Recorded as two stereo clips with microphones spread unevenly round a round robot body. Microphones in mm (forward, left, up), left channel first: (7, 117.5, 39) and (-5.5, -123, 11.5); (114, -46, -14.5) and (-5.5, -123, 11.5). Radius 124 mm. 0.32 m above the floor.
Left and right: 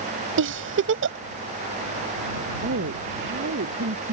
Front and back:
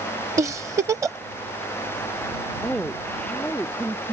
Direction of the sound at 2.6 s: 50° right.